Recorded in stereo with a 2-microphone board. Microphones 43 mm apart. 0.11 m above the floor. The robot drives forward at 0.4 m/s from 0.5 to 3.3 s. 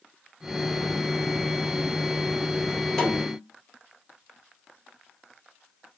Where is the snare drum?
5° left (ahead or behind), 2 m.